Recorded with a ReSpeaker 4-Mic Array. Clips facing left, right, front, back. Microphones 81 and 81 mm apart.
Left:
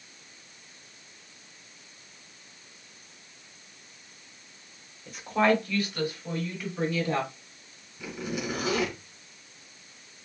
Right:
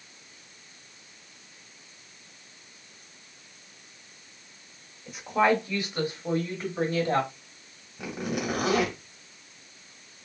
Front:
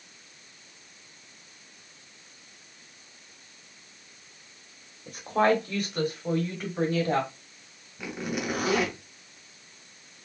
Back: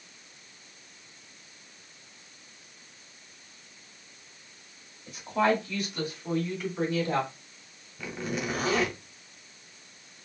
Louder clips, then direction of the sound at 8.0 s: Right 3 dB, front 1 dB; 75° right.